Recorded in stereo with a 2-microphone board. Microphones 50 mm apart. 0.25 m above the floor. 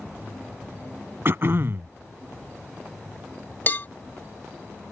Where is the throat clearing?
50° right (ahead or behind).